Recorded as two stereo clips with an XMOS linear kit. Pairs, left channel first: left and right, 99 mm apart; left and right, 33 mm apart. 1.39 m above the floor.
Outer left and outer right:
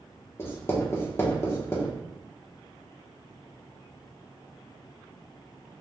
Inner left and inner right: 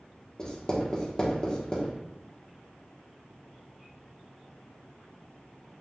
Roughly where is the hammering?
No hammering in this recording.